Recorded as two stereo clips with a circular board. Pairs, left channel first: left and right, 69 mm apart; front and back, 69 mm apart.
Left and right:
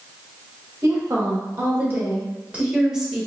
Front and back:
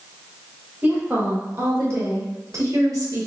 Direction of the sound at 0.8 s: 120° right.